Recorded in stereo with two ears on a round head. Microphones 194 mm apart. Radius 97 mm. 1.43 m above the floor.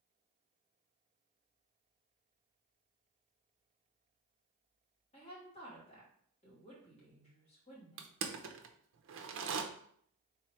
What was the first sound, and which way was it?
A woman speaking, 30° left (ahead or behind).